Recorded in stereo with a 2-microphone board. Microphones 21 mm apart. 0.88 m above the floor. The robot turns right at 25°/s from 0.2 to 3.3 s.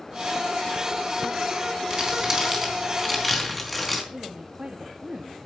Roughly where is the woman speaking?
Right.